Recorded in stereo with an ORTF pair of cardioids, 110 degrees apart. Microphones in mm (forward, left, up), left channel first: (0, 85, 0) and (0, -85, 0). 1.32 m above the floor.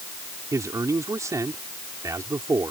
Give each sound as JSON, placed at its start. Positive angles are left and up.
{"t": 0.5, "sound": "a man speaking", "azimuth_deg": -20}